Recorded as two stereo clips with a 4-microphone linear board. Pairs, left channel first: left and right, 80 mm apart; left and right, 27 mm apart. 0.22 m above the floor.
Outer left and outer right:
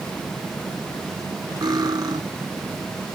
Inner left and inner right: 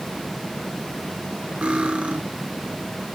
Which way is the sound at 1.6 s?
55° right (ahead or behind).